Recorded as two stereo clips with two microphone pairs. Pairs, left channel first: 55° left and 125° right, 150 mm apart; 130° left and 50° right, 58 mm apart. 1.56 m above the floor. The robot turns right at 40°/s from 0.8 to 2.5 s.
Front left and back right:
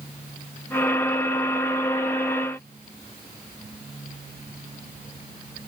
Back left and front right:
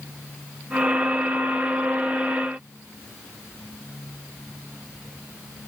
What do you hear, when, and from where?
Only background noise.